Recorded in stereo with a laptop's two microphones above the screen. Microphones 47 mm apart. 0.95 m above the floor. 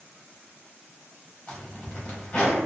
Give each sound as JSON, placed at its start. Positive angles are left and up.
{"t": 1.5, "sound": "a zipper", "side_deg": 25, "distance_m": 0.8}